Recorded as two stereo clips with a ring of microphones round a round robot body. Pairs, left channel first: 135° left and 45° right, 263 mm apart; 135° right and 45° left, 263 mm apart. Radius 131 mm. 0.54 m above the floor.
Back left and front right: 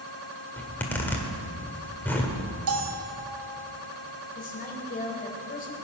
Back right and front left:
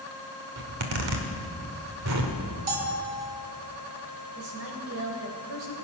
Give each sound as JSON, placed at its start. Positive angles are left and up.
{"t": 0.6, "sound": "a zipper", "azimuth_deg": 55, "distance_m": 1.8}
{"t": 2.7, "sound": "a bell", "azimuth_deg": -10, "distance_m": 2.5}
{"t": 4.3, "sound": "a woman speaking", "azimuth_deg": 80, "distance_m": 3.0}